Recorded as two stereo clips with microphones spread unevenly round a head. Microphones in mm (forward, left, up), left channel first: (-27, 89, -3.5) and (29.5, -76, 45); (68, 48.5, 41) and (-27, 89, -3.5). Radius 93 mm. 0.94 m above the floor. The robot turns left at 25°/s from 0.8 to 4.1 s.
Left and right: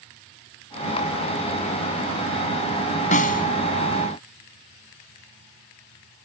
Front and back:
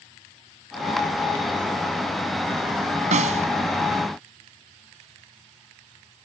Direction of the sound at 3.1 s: 160° left.